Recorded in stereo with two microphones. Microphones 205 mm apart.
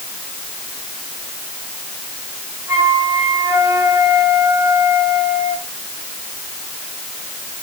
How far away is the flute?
About 4 m.